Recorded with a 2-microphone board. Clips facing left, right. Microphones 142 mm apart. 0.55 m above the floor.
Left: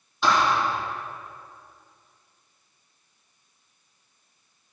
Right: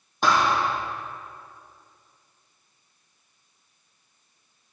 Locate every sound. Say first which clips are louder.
0.2 s a thud: even; 50° right (ahead or behind), 4 m